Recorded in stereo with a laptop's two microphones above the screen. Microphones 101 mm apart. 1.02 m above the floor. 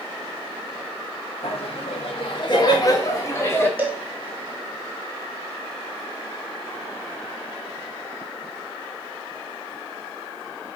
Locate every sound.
1.4 s laughter: 65° left (ahead or behind), 1.5 m; by 3.7 s 20° left (ahead or behind), 2.5 m
3.8 s a cowbell: 15° right (ahead or behind), 0.8 m